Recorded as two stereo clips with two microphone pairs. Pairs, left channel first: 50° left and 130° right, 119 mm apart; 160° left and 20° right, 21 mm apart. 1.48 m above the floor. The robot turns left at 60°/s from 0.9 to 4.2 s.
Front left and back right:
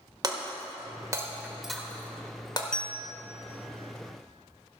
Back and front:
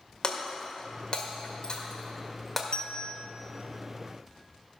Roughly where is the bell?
Behind left.